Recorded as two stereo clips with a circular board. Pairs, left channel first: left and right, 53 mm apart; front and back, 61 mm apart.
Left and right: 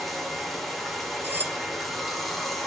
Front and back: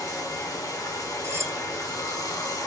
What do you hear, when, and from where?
0.0 s running water: straight ahead, 2.5 m
1.2 s cutlery clinking: 140° right, 1.8 m